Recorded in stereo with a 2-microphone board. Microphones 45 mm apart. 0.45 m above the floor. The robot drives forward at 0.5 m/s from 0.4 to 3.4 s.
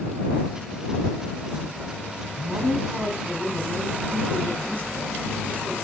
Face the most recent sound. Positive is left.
turn(degrees=-40)  # may be behind; listen again after turning